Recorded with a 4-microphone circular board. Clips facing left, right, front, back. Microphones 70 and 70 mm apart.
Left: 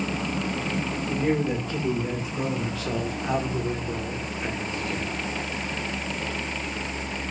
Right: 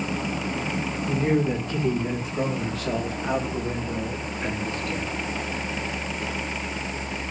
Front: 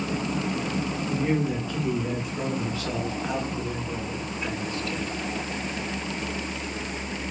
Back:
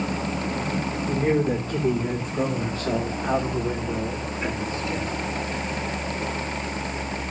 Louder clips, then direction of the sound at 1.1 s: Right 2 dB, back 4 dB; 140° right.